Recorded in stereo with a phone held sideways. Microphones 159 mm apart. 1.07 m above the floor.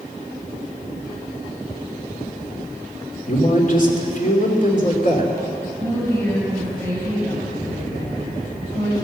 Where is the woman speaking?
15° left (ahead or behind), 5.5 m.